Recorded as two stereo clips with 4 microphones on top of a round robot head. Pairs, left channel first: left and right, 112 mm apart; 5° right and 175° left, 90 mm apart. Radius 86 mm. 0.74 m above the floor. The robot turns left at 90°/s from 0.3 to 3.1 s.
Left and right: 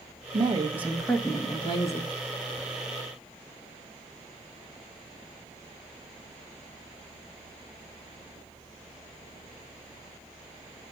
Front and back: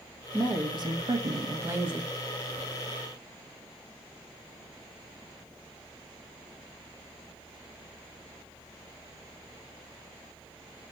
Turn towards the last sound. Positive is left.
turn(degrees=-10)